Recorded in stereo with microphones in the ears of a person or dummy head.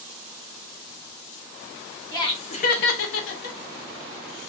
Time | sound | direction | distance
2.1 | laughter | 25° left (ahead or behind) | 0.9 m